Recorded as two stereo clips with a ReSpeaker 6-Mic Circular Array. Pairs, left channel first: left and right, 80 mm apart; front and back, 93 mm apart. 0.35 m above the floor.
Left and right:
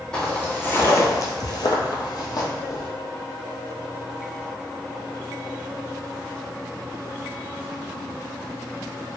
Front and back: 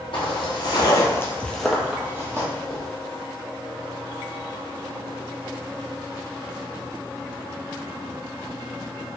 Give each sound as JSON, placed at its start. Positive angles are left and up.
{"t": 0.1, "sound": "footsteps", "azimuth_deg": 15, "distance_m": 0.9}